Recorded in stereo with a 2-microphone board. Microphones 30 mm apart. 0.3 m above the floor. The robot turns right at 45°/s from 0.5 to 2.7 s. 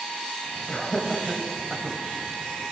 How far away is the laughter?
About 1.2 m.